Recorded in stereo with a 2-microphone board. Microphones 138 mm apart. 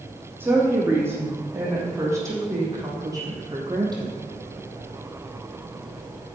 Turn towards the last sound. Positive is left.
turn(degrees=-30)  # may be behind; listen again after turning